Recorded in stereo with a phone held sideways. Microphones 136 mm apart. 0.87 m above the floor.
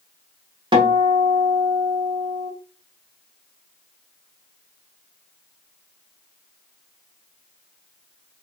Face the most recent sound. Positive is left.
turn(degrees=-35)  # may be behind; listen again after turning